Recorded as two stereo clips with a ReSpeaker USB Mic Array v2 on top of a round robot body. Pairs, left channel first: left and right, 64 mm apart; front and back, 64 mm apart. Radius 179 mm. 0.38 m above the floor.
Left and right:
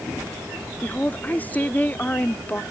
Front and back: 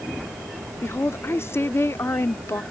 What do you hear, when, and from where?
0.8 s a woman speaking: 35° left